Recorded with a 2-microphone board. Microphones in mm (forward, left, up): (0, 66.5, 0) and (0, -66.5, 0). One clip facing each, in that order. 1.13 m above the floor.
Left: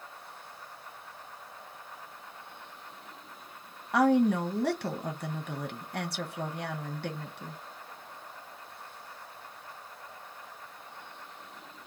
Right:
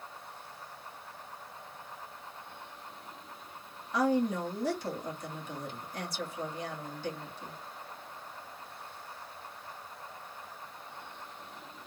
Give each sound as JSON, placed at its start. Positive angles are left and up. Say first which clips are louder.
{"t": 3.9, "sound": "a woman speaking", "louder": "left 5 dB", "side_deg": 65, "distance_m": 1.2}